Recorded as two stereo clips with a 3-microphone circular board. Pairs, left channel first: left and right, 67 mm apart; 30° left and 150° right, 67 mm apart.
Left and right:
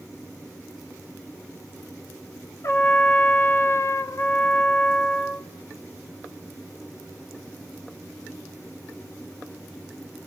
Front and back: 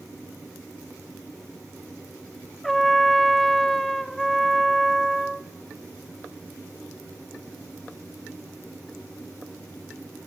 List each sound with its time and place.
2.6 s a trumpet: 115° left, 1.5 m